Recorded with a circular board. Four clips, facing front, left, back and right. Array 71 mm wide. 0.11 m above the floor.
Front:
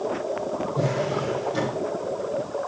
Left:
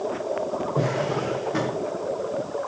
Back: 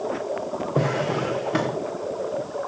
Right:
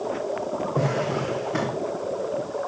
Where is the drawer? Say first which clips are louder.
Even, back 3 dB; 175° right, 4.5 m.